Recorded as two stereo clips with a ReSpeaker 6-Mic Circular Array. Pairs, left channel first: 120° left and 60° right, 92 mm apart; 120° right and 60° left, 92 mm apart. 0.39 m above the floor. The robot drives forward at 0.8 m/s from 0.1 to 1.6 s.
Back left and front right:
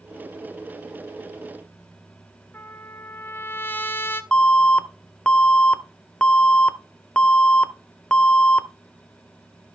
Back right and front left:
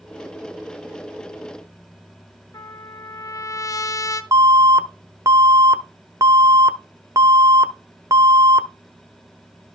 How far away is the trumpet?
About 0.6 m.